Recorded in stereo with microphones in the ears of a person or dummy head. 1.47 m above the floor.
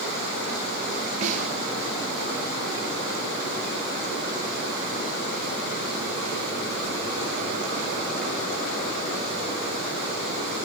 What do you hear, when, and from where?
1.2 s a snare drum: 45° right (ahead or behind), 4 m